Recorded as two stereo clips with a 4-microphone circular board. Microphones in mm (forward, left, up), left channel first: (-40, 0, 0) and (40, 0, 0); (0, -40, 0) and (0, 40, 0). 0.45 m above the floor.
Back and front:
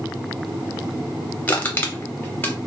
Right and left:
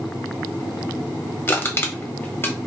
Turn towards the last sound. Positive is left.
turn(degrees=-130)